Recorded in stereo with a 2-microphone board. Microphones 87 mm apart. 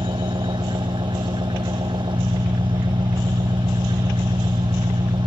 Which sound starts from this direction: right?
An engine running, at 0.0 s.